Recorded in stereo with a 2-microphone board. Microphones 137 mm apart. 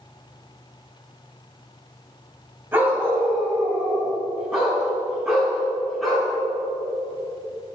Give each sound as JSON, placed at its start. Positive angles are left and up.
{"t": 2.7, "sound": "a dog barking", "side_deg": -15, "distance_m": 2.5}